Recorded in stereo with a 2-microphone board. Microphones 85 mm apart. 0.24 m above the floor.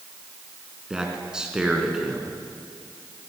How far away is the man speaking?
About 2 m.